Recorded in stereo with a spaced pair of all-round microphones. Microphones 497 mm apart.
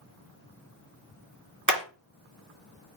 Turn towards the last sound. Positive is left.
turn(degrees=-10)  # may be behind; listen again after turning